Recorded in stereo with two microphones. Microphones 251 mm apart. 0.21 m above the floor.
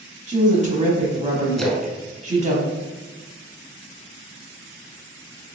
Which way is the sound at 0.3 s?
30° right (ahead or behind).